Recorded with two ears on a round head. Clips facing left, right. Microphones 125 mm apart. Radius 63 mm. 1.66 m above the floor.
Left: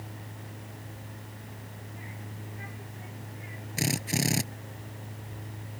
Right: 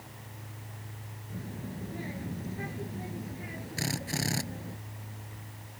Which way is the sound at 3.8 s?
25° left (ahead or behind).